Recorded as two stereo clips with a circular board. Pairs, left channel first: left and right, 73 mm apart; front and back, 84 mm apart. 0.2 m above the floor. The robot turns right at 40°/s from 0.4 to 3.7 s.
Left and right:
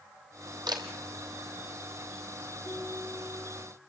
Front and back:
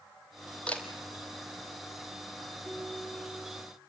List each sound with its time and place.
0.7 s a camera shutter: 75° right, 2.5 m; by 0.8 s 70° right, 2.5 m
2.6 s a ringtone: 70° left, 10 m; by 3.7 s 110° left, 10 m